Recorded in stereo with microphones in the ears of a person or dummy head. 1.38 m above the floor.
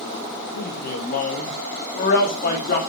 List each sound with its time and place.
0.6 s a man speaking: 50° left (ahead or behind), 1.3 m; by 2.8 s 55° left (ahead or behind), 2.5 m